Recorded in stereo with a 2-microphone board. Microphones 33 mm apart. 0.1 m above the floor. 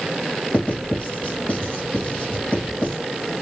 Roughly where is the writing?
Left.